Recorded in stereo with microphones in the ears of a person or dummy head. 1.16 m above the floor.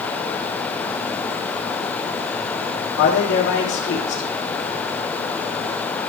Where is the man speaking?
60° left (ahead or behind), 2.5 m.